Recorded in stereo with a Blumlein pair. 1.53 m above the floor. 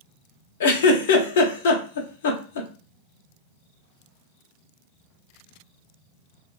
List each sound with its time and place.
0.6 s a giggle: 55° left, 0.6 m